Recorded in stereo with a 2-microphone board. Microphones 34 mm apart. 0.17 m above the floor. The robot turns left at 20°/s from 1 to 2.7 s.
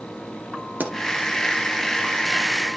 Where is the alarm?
I don't hear an alarm.